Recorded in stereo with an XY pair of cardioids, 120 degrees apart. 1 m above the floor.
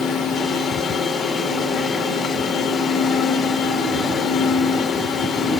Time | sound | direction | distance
0.0 | a machine running | 50° left | 2.5 m